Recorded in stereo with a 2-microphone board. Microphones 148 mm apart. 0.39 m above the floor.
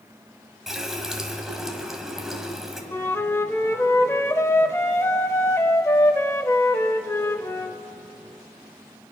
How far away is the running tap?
About 1.6 m.